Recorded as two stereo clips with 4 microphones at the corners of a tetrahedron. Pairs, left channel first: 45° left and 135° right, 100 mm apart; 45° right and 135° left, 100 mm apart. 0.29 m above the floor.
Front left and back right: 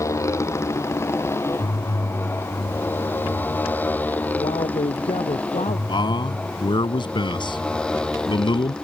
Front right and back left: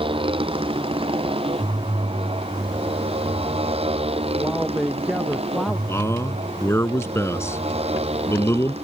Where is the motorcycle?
105° left; by 8.8 s 130° left.